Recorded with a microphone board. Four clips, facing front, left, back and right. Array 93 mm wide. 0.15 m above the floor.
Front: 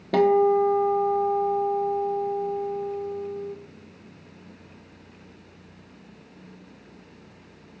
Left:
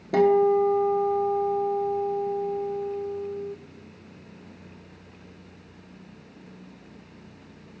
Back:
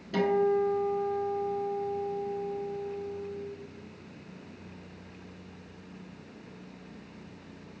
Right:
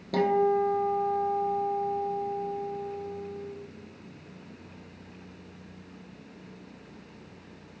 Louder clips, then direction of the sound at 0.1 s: Left 5 dB, front 7 dB; 20° left.